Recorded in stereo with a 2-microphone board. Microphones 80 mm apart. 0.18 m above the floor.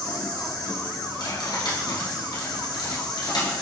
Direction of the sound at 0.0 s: 50° left (ahead or behind).